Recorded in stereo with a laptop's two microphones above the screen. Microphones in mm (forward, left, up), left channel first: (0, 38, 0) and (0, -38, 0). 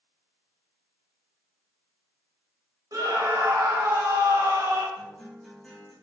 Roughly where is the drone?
No drone in this recording.